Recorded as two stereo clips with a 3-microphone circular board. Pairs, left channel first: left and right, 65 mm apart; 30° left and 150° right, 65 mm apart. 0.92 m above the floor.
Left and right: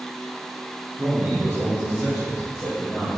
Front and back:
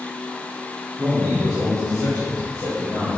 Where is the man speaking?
145° right, 2 m; by 3.1 s 175° right, 4 m.